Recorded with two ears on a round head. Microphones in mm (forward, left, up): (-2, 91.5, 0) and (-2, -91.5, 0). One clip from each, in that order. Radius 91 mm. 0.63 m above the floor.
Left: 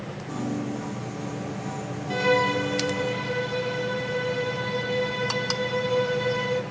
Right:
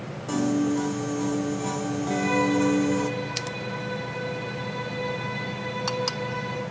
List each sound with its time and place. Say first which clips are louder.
0.3 s a piano: right 7 dB; 65° right (ahead or behind), 0.6 m
2.1 s a violin: left 3 dB; 60° left (ahead or behind), 0.7 m